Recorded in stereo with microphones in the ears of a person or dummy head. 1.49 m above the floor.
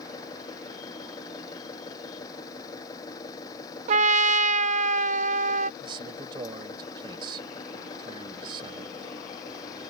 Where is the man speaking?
25° right (ahead or behind).